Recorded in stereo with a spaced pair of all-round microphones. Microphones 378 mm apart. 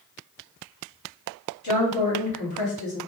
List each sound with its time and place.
1.6 s a woman speaking: 45° left (ahead or behind), 2 m